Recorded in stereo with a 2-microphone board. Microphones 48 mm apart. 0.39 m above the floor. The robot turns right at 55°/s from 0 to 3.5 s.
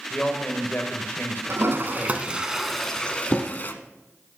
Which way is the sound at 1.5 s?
65° right (ahead or behind).